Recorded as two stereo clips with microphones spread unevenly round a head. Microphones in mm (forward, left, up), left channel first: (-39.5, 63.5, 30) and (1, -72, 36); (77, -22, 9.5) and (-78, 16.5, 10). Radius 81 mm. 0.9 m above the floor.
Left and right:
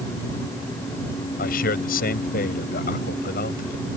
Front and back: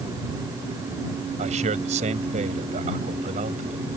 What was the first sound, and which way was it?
A man speaking, 120° left.